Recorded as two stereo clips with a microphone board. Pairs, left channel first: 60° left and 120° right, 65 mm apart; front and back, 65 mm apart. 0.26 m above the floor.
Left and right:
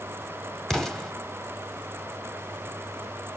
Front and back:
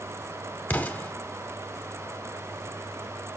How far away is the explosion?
About 1.1 m.